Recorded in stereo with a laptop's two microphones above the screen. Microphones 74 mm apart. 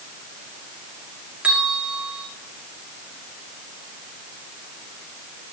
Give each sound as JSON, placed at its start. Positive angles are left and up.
{"t": 1.4, "sound": "a bell", "side_deg": -15, "distance_m": 2.0}